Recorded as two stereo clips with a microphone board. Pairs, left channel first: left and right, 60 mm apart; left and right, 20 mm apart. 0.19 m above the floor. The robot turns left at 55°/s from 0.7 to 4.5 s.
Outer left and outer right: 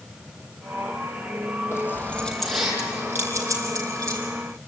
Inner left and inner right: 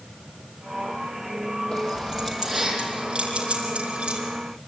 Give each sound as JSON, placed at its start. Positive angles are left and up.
{"t": 1.7, "sound": "keys jangling", "side_deg": 45, "distance_m": 4.5}